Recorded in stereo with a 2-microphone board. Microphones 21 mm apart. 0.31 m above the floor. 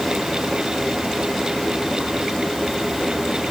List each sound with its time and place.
Only background noise.